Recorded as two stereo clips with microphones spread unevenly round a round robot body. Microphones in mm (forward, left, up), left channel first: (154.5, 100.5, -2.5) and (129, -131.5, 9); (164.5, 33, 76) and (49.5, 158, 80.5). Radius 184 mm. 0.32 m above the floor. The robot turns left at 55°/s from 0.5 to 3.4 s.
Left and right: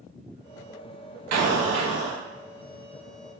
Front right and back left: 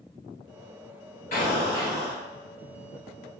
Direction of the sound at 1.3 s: 100° right.